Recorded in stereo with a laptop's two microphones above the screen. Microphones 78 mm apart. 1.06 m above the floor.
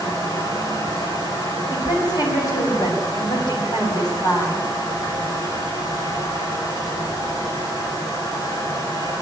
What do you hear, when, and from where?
0.0 s a fan: 60° left (ahead or behind), 5.5 m
1.7 s a woman speaking: 65° left (ahead or behind), 7.5 m